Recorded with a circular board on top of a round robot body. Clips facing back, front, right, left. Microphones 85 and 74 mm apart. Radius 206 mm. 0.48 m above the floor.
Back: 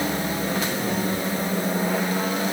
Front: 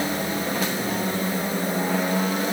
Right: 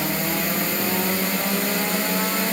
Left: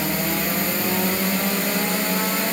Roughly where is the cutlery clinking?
No cutlery clinking in this recording.